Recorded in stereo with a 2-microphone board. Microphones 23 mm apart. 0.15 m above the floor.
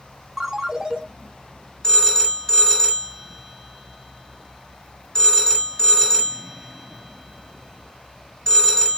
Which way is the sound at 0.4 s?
20° right (ahead or behind).